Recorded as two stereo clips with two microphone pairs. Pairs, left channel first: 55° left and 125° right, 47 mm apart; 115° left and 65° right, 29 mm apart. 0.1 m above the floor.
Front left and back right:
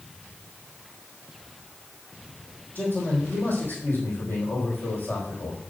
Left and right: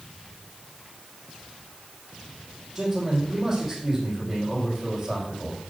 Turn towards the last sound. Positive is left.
turn(degrees=5)